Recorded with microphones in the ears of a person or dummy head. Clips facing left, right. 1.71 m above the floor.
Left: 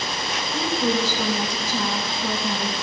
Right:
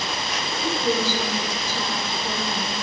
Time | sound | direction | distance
0.5 | a woman speaking | 60° left (ahead or behind) | 3.5 m